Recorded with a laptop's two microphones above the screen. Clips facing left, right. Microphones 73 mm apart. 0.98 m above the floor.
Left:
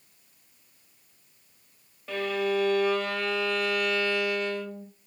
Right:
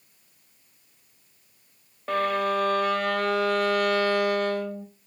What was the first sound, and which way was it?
A violin, 50° right (ahead or behind).